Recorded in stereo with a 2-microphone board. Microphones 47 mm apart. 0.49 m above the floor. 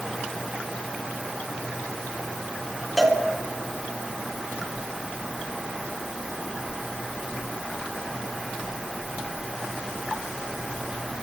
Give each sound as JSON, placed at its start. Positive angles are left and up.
{"t": 3.0, "sound": "a cowbell", "side_deg": 0, "distance_m": 1.6}